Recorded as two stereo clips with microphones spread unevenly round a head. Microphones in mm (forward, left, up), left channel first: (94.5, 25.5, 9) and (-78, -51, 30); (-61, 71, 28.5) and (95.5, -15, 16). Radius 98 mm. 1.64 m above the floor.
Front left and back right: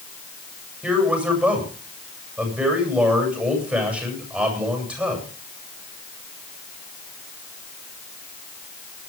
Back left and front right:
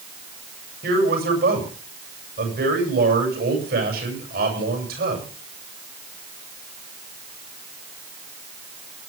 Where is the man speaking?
70° right, 8 m.